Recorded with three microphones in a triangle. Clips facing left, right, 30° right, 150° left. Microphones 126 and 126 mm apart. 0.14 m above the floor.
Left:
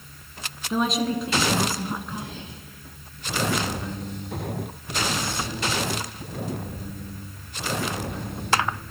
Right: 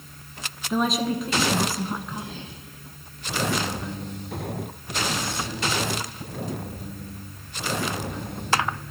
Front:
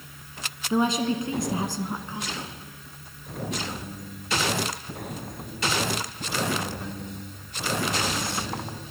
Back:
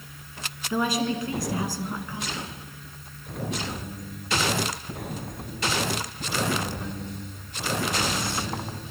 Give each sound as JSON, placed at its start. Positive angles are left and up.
{"t": 0.7, "sound": "a woman speaking", "azimuth_deg": 0, "distance_m": 1.1}